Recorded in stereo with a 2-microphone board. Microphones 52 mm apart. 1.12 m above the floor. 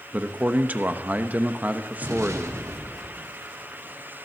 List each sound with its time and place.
0.1 s a man speaking: 35° right (ahead or behind), 1.0 m
2.0 s an explosion: 85° right, 2 m